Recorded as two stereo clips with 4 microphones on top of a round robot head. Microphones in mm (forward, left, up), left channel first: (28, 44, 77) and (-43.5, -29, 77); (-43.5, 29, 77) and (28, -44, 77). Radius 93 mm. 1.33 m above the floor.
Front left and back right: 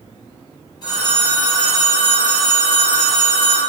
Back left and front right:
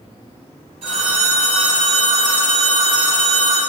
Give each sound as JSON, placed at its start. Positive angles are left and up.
{"t": 0.8, "sound": "a phone ringing", "azimuth_deg": -5, "distance_m": 0.8}